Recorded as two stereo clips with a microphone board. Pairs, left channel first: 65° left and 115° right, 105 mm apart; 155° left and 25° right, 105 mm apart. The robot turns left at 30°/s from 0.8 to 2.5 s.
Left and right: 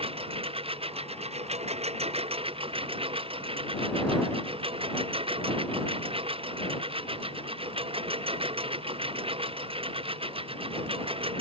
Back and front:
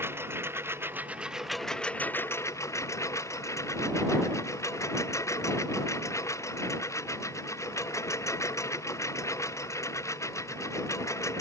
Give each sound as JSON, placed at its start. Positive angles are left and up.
{"t": 0.0, "sound": "a lawn mower", "azimuth_deg": -90}